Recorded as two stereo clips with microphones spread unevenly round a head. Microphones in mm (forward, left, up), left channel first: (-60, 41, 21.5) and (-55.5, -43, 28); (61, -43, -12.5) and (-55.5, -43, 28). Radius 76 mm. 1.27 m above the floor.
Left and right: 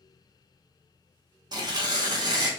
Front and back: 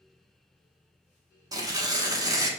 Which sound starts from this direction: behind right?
Tearing paper, at 1.5 s.